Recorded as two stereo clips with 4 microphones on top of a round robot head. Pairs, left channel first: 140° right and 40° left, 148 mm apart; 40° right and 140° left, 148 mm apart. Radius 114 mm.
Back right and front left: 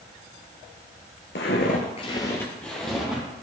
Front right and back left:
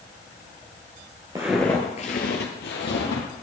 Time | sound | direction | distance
1.4 | footsteps | 150° right | 0.8 m